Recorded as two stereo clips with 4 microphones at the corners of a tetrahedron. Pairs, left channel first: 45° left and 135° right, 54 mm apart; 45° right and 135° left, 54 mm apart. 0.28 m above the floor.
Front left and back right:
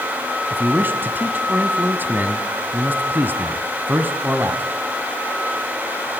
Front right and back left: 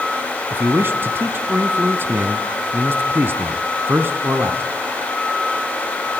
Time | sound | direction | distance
0.5 | a man speaking | 175° left | 1.8 m